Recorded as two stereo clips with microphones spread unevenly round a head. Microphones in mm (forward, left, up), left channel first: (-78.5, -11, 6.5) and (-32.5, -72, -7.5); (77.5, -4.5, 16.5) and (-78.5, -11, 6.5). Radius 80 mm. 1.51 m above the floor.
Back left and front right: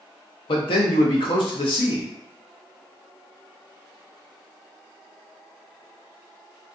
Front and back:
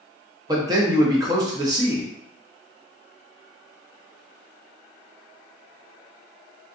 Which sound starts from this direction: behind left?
A man speaking, at 0.5 s.